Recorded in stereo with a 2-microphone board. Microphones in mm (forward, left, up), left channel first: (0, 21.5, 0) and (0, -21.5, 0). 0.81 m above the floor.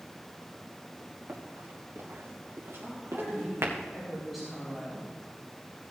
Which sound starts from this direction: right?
Running footsteps, at 1.3 s.